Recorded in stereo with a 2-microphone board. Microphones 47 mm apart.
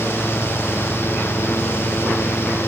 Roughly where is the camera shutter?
I don't hear a camera shutter.